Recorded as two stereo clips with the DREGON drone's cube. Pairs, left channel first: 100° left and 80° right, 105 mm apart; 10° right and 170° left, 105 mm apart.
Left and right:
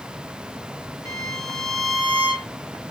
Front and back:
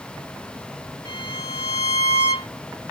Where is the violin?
150° left, 2 m.